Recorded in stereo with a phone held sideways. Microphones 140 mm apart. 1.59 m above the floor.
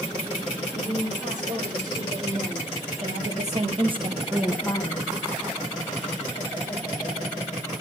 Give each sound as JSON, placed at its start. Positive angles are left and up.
{"t": 0.7, "sound": "a woman speaking", "side_deg": -75, "distance_m": 6.0}